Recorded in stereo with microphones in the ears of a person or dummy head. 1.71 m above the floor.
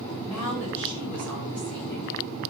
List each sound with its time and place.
0.1 s a woman speaking: 5° left (ahead or behind), 6 m